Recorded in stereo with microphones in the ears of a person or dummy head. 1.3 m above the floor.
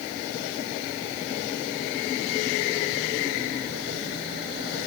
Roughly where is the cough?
No cough in this recording.